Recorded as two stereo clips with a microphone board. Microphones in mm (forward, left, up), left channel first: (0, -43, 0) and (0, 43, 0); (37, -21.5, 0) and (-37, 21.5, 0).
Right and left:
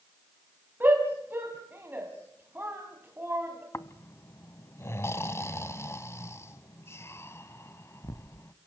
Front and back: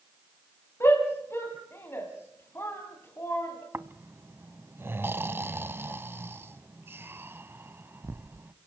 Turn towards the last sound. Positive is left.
turn(degrees=-145)